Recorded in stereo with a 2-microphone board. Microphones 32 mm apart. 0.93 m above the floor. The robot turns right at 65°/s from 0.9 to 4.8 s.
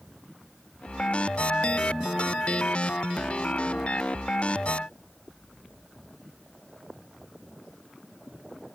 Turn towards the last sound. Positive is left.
No sound to turn to.